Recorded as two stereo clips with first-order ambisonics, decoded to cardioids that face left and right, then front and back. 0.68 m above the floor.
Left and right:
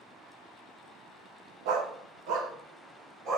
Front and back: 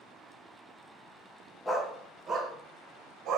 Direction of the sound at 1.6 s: 85° right.